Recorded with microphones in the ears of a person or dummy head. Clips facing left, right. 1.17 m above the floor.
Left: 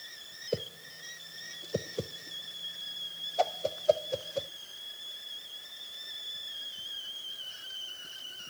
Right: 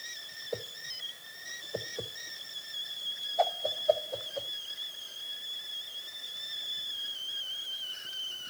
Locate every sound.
0.5 s a whoosh: 45° left (ahead or behind), 0.7 m